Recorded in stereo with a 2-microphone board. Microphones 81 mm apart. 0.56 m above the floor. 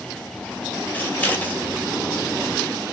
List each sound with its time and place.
0.9 s scissors: 20° left (ahead or behind), 1.2 m